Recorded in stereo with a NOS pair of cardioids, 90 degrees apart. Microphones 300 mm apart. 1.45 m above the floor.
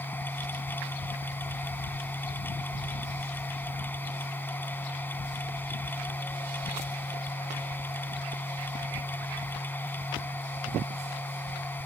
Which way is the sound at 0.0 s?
5° left.